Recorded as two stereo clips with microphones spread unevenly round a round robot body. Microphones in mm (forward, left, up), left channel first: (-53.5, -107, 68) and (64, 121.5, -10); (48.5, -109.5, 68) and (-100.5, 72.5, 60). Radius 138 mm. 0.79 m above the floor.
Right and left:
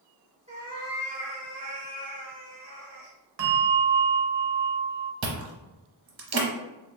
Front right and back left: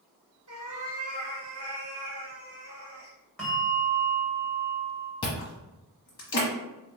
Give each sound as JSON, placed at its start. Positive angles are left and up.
{"t": 0.5, "sound": "a cat meowing", "azimuth_deg": 140, "distance_m": 1.1}
{"t": 3.4, "sound": "a bell", "azimuth_deg": 35, "distance_m": 0.8}
{"t": 5.2, "sound": "chewing", "azimuth_deg": 20, "distance_m": 1.0}